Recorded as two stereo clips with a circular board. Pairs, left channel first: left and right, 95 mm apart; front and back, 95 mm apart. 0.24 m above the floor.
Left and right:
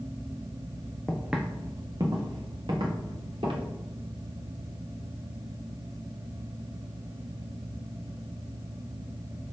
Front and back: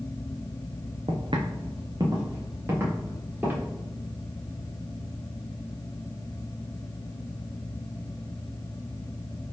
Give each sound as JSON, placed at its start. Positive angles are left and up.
{"t": 1.1, "sound": "footsteps", "azimuth_deg": 175, "distance_m": 0.8}